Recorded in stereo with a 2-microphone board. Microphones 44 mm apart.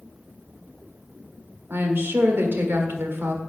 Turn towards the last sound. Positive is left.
turn(degrees=-60)  # may be behind; listen again after turning